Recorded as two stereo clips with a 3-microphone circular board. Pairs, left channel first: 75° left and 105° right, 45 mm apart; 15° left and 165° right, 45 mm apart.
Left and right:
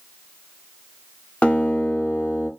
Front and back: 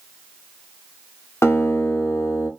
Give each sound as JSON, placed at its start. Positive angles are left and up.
{"t": 1.4, "sound": "a guitar", "azimuth_deg": 10, "distance_m": 0.5}